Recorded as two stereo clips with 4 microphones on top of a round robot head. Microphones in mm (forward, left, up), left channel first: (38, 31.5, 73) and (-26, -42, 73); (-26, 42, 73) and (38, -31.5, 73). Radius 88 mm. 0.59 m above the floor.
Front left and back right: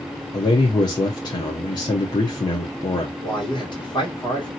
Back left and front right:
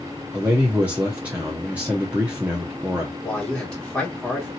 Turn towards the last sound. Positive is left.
turn(degrees=50)